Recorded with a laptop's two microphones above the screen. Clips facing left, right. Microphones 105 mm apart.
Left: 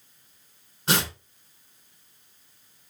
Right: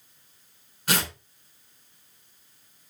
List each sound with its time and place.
0.9 s tearing paper: 30° left (ahead or behind), 4.5 m